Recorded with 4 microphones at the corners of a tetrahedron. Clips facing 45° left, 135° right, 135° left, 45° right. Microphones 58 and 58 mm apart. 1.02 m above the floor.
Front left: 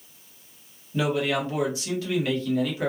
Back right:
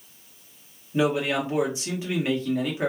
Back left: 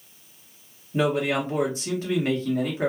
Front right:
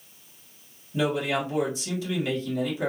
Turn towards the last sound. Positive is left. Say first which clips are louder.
# back right 1 dB, back left 2 dB
turn(degrees=165)